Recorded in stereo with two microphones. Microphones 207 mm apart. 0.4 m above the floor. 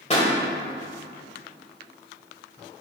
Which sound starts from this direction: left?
A pop, at 0.1 s.